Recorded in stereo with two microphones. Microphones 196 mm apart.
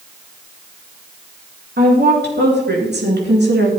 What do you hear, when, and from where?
1.8 s a woman speaking: 60° right (ahead or behind), 4 m; by 3.7 s 65° right (ahead or behind), 3 m